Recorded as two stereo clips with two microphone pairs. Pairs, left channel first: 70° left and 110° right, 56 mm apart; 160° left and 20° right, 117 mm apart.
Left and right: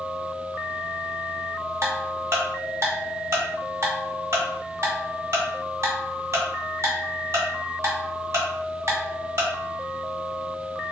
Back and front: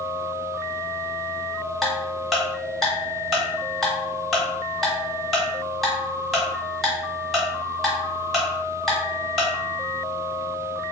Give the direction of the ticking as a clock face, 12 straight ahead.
4 o'clock.